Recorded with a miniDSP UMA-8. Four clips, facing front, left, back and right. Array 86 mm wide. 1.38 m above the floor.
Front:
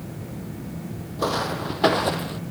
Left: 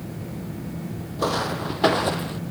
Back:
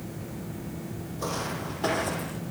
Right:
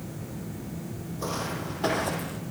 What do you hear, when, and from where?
1.2 s footsteps: 50° left, 2 m; by 2.4 s 35° left, 1.9 m